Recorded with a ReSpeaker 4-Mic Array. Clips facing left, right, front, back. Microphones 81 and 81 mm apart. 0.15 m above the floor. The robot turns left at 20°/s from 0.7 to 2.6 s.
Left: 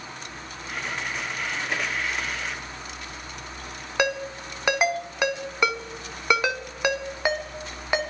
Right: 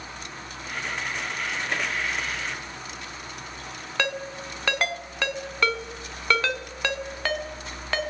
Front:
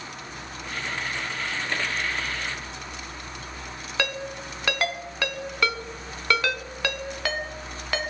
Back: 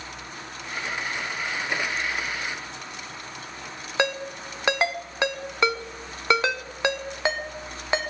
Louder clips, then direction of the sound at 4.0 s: Left 4 dB, back 4 dB; 145° left.